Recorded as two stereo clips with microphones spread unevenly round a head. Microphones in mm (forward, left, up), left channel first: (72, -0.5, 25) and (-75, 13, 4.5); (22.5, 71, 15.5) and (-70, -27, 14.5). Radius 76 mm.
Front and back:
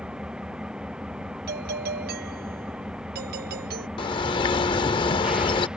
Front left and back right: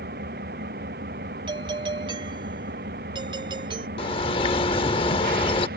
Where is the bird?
15° left.